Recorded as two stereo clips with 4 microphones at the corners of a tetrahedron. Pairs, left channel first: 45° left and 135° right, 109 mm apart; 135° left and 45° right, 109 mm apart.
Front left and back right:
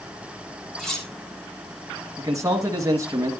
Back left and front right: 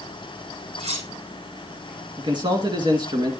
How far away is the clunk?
No clunk in this recording.